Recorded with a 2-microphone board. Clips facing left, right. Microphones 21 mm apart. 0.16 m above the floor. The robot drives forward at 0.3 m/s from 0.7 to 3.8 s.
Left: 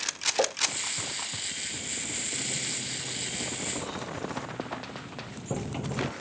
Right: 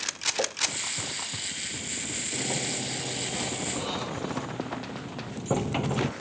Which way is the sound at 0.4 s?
25° left (ahead or behind).